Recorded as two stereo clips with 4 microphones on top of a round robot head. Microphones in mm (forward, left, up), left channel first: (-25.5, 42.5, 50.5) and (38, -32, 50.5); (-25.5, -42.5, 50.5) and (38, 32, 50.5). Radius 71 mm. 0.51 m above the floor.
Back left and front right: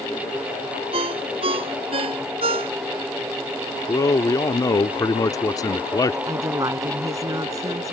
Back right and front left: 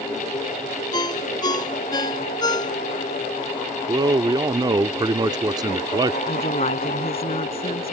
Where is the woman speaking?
105° right.